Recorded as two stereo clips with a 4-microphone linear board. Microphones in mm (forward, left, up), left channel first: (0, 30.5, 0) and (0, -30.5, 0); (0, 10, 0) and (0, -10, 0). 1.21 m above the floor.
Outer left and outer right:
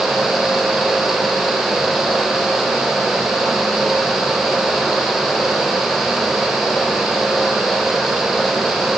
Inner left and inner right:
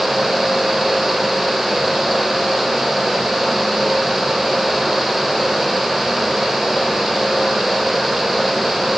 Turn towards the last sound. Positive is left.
No sound to turn to.